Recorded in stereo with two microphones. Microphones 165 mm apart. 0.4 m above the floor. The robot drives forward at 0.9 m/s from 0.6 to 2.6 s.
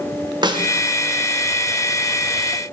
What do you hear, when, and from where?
0.4 s a snare drum: 25° right (ahead or behind), 1.3 m; by 0.7 s 30° right (ahead or behind), 1.3 m